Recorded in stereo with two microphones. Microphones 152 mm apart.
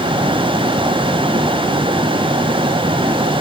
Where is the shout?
I don't hear a shout.